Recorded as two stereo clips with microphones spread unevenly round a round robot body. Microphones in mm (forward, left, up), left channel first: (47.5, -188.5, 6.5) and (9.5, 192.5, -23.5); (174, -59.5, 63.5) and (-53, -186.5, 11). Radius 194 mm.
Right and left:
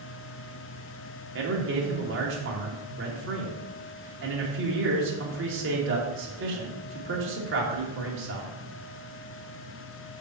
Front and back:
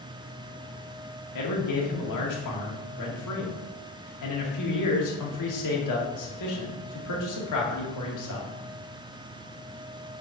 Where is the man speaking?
40° left, 2.5 m.